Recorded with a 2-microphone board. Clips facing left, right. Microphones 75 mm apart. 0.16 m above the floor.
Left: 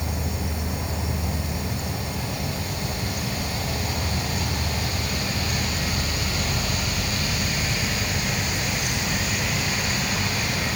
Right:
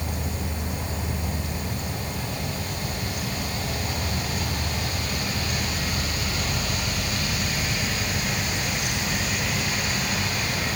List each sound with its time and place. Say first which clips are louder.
0.0 s an insect: left 1 dB; 5° left (ahead or behind)